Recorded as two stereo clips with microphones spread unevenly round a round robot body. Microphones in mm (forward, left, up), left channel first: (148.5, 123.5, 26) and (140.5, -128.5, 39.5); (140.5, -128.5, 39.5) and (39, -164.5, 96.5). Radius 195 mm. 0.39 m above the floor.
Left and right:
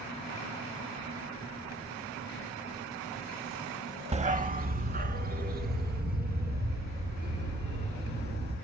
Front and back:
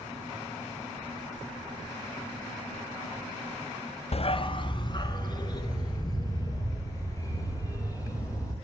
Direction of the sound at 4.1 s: 20° right.